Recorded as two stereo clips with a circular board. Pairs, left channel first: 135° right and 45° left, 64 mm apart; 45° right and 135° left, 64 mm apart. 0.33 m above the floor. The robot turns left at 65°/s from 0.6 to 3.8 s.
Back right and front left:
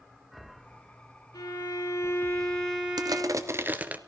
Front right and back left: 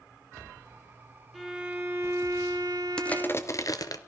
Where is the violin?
135° right, 3.5 m; by 3.7 s 75° left, 3.5 m.